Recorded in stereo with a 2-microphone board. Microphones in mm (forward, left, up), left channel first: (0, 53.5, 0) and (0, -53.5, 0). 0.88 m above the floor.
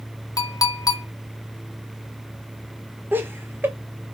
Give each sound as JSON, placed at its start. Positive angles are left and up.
{"t": 0.4, "sound": "a clink", "side_deg": 35, "distance_m": 0.5}
{"t": 3.1, "sound": "laughter", "side_deg": -20, "distance_m": 0.6}